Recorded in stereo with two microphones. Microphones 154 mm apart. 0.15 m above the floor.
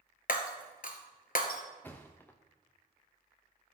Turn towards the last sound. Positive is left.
turn(degrees=10)  # may be behind; listen again after turning